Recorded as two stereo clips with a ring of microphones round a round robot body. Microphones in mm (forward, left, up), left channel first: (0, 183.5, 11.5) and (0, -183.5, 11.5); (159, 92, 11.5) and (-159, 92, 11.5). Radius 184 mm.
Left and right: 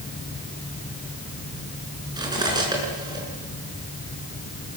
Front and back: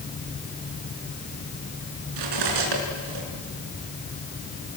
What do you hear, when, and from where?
2.2 s cutlery clinking: 170° right, 5 m